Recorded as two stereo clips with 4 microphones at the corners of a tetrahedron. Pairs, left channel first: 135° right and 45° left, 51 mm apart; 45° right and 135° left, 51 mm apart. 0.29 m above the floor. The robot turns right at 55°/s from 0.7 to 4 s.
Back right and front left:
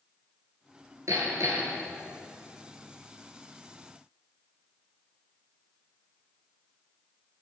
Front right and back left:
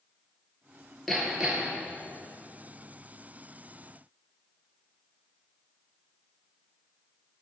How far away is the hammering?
About 3 m.